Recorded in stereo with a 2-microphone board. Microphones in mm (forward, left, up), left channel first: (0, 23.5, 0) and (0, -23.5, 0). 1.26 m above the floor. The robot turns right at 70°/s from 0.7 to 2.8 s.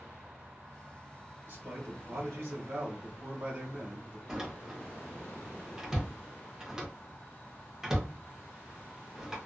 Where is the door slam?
10° right (ahead or behind), 0.8 m.